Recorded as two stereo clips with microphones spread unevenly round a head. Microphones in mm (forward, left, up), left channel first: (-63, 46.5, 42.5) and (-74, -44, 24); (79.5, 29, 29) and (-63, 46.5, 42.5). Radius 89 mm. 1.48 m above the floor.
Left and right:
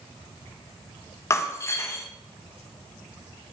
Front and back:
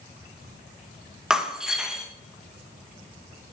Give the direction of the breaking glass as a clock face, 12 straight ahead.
9 o'clock.